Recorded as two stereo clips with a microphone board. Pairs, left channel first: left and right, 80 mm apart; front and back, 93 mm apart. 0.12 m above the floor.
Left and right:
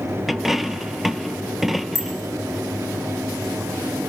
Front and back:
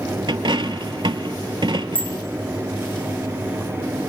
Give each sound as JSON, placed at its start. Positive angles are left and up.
{"t": 0.3, "sound": "a dropped coin", "azimuth_deg": -175, "distance_m": 0.6}
{"t": 1.9, "sound": "a bicycle bell", "azimuth_deg": 0, "distance_m": 5.0}